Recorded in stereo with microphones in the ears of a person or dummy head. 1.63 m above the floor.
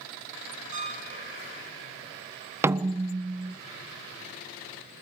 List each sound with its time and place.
0.7 s a piano: 35° right (ahead or behind), 5 m
2.6 s a snare drum: 10° right (ahead or behind), 0.6 m